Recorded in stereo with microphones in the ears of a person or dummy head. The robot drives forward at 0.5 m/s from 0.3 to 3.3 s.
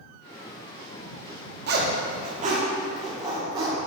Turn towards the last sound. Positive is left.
turn(degrees=-25)  # may be behind; listen again after turning